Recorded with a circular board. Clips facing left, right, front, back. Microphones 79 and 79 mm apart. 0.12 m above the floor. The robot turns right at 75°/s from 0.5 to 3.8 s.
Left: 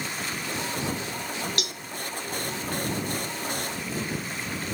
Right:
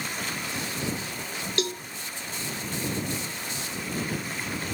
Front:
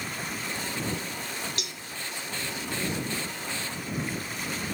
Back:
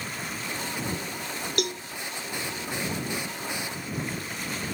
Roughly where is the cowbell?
Behind right.